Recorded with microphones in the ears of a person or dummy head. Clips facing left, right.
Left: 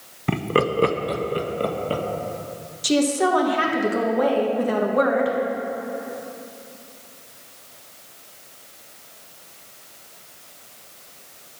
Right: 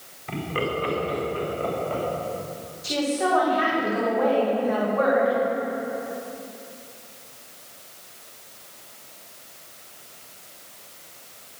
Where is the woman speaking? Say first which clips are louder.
Left 5 dB; 55° left (ahead or behind), 1.5 m.